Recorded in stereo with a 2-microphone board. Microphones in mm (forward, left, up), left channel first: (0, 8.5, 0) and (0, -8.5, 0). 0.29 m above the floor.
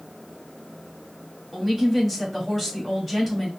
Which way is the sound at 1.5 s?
5° left (ahead or behind).